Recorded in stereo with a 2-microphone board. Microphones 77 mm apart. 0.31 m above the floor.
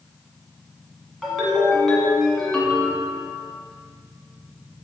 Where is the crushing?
No crushing in this recording.